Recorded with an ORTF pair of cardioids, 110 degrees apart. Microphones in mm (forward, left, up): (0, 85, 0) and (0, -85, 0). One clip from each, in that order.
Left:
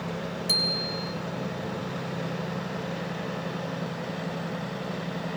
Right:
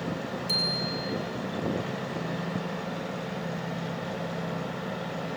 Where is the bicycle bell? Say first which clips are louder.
Left 2 dB; 35° left, 6 m.